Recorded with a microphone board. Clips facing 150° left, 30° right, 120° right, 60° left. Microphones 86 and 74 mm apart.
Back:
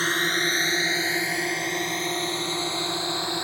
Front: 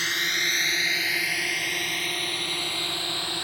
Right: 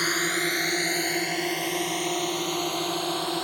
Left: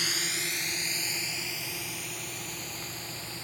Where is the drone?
160° right; by 3.4 s 140° right.